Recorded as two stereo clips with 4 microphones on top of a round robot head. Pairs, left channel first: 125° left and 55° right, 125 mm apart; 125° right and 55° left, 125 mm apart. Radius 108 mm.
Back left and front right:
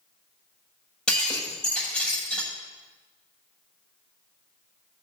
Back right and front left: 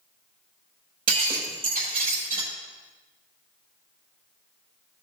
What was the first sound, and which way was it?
Breaking glass, 40° left.